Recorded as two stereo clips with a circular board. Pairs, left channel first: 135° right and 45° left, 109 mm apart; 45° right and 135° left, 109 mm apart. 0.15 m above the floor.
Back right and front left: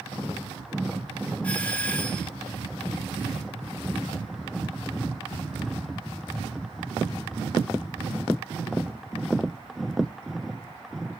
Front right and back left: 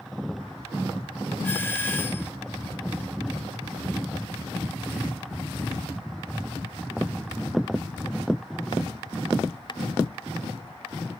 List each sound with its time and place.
1.4 s a doorbell: 70° right, 2 m